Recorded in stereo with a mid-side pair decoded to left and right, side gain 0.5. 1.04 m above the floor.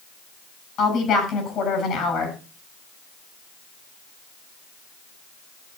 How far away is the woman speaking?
About 7 m.